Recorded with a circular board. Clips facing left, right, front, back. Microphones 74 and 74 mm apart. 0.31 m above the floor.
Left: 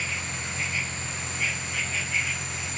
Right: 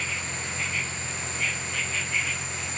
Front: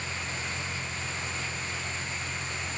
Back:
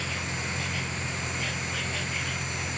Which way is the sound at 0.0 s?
175° left.